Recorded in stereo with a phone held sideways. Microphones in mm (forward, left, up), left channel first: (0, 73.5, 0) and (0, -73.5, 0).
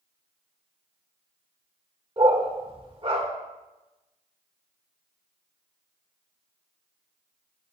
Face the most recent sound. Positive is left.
turn(degrees=-35)  # may be behind; listen again after turning